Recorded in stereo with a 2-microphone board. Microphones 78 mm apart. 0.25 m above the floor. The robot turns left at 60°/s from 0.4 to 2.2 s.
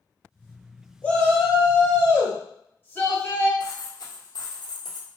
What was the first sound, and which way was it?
A shout, 15° left (ahead or behind).